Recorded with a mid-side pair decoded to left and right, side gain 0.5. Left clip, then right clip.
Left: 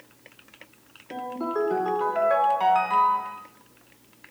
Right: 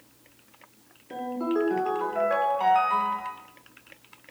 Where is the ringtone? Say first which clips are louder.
Right 1 dB; 15° left, 2 m.